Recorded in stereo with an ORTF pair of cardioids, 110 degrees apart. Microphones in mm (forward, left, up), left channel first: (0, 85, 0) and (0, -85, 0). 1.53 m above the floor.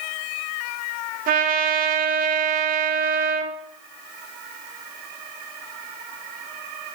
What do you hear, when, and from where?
1.3 s a trumpet: 60° right, 1.3 m